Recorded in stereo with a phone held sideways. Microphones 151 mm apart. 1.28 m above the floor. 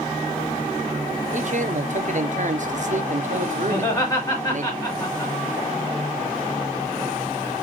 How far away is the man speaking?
About 0.6 m.